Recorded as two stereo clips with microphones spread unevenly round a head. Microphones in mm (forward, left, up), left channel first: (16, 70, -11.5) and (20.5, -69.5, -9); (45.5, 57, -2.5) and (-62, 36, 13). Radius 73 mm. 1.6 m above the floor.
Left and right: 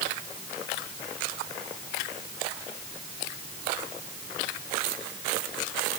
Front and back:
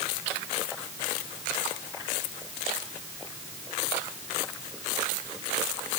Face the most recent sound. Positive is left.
No sound to turn to.